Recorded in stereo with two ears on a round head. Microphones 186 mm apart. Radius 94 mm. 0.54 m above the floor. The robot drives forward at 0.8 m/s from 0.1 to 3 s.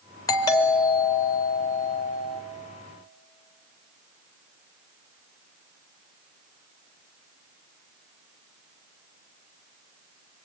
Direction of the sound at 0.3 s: 15° left (ahead or behind).